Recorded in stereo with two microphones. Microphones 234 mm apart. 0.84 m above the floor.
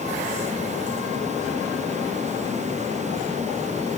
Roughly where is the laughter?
I don't hear laughter.